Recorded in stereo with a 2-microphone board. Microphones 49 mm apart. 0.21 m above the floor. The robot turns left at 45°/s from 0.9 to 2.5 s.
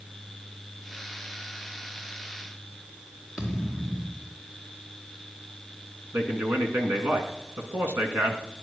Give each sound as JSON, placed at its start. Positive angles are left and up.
{"t": 3.4, "sound": "a thud", "side_deg": -10, "distance_m": 4.0}
{"t": 6.1, "sound": "a man speaking", "side_deg": -55, "distance_m": 2.5}